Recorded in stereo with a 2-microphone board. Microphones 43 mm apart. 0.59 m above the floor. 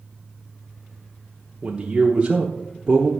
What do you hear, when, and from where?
1.6 s a man speaking: 20° right (ahead or behind), 0.9 m